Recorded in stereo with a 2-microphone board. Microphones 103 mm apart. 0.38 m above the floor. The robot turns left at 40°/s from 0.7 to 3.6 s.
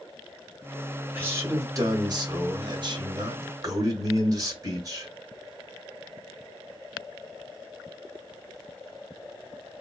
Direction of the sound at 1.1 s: 25° right.